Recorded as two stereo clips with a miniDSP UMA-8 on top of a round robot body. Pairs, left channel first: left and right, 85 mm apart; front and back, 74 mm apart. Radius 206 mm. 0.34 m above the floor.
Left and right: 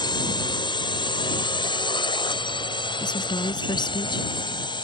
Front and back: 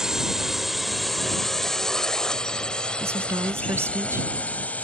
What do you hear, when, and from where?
0.0 s a drone: 100° left; by 4.9 s 70° left
3.0 s a woman speaking: 125° left